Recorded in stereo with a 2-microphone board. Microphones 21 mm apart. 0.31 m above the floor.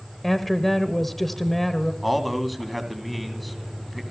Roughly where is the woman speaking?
Centre.